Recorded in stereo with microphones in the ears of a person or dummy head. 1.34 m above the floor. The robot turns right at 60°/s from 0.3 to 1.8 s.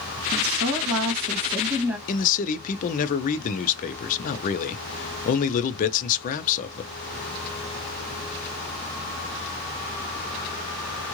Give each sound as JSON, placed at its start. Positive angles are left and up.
{"t": 0.3, "sound": "a woman speaking", "azimuth_deg": -100, "distance_m": 2.0}
{"t": 2.1, "sound": "a man speaking", "side_deg": 45, "distance_m": 0.7}